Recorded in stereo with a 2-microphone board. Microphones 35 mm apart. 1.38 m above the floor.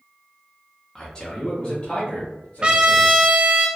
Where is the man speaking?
15° left (ahead or behind), 0.7 m; by 3.2 s 55° left (ahead or behind), 2 m.